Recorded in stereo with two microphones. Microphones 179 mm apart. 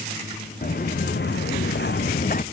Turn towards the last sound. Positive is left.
turn(degrees=50)  # may be behind; listen again after turning